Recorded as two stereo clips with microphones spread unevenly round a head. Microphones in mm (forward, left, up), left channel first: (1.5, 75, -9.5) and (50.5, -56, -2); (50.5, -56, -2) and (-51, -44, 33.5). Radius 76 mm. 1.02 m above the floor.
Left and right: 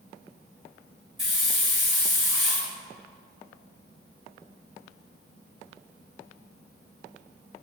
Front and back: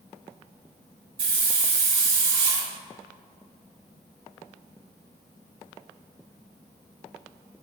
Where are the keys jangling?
No keys jangling in this recording.